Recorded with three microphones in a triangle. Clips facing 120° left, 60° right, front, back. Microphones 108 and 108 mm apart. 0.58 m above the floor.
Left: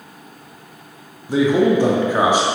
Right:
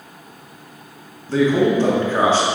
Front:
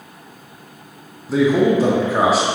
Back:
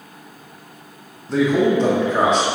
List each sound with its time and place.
1.3 s a man speaking: 75° left, 0.6 m